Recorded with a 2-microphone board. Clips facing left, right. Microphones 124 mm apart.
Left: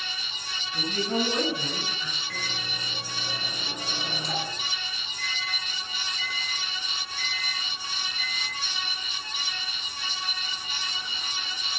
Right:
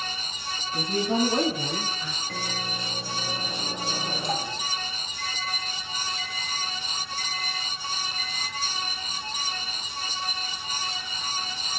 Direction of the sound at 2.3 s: 50° right (ahead or behind).